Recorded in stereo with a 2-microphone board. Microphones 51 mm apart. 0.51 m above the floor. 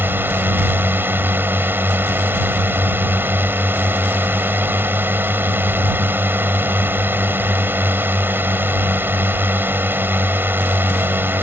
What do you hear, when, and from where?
0.0 s a drone: 40° right (ahead or behind)